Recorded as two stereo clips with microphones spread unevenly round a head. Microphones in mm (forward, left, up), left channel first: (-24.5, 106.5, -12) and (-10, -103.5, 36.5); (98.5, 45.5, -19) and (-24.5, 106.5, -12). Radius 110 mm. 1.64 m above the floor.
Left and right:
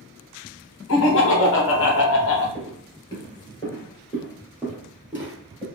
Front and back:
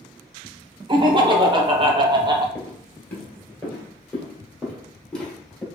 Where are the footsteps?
30° left, 1.7 m; by 5.7 s 120° right, 1.8 m.